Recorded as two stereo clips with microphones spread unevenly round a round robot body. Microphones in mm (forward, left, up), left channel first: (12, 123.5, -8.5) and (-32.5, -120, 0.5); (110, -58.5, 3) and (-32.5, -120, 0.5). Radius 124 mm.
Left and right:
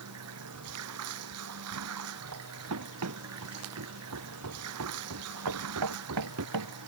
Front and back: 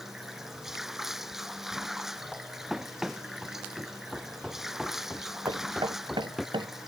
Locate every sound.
0.0 s running water: 70° right
2.7 s running footsteps: 70° right; by 6.5 s 65° right
5.5 s knocking: 95° right